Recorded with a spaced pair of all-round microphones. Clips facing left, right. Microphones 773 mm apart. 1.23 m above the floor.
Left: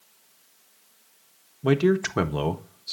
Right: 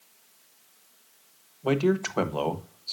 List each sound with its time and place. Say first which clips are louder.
1.6 s a man speaking: left 3 dB; 55° left (ahead or behind), 1.0 m